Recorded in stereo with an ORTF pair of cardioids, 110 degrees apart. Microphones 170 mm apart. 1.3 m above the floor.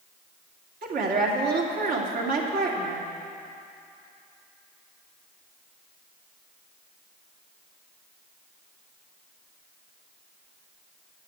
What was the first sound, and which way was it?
A woman speaking, 55° right.